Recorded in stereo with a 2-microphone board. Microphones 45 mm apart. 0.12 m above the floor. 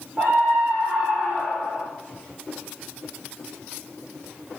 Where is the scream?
35° right (ahead or behind), 6.5 m; by 1.8 s 25° right (ahead or behind), 8.5 m.